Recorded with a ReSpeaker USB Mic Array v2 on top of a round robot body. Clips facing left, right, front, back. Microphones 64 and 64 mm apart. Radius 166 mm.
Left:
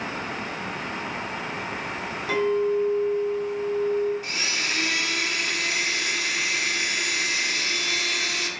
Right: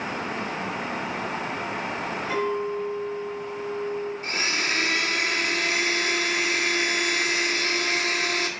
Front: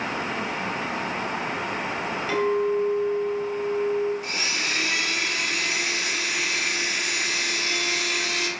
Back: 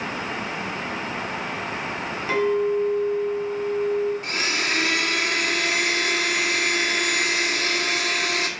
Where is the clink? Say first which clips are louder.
Left 5 dB, back 2 dB; 115° left, 4 m.